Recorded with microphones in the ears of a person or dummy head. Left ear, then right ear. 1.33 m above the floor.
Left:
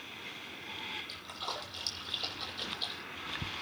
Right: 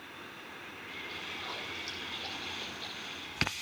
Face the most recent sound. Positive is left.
turn(degrees=80)